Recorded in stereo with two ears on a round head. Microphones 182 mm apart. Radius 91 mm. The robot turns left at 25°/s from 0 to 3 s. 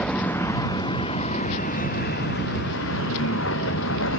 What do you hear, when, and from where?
0.0 s a vehicle: 5° left (ahead or behind); by 4.2 s 65° left (ahead or behind)